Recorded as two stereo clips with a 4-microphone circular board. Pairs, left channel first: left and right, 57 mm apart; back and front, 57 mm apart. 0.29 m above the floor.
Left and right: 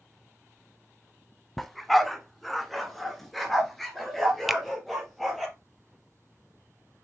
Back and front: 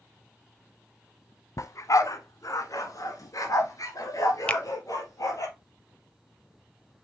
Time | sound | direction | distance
1.6 | a dog barking | straight behind | 0.9 m
4.5 | a finger snap | 175° right | 0.7 m